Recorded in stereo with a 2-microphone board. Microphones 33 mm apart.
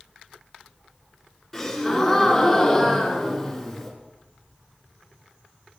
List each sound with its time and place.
1.5 s a gasp: 5° left (ahead or behind), 4 m